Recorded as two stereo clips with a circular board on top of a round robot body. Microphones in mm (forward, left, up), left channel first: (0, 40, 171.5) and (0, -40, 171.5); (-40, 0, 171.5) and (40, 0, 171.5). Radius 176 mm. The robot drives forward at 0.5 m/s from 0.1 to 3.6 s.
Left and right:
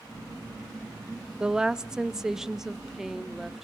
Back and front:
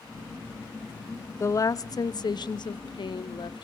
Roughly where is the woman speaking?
Behind.